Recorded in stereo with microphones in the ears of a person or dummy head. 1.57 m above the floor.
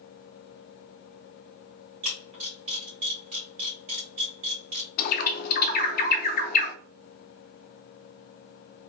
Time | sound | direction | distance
2.0 | a camera shutter | 40° right (ahead or behind) | 1.2 m
5.0 | a bird | 45° left (ahead or behind) | 0.6 m